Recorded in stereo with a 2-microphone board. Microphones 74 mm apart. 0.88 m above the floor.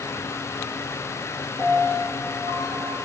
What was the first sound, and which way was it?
A piano, 70° left (ahead or behind).